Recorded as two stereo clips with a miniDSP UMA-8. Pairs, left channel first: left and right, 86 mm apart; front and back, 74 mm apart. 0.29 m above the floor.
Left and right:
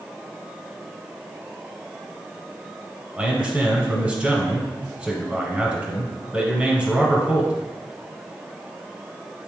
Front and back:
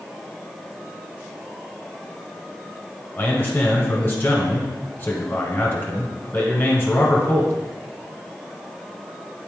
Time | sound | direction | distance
3.2 | a man speaking | 30° right | 1.5 m